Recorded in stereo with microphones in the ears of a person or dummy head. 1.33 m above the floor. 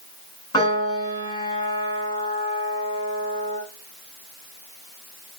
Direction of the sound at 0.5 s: 30° left (ahead or behind).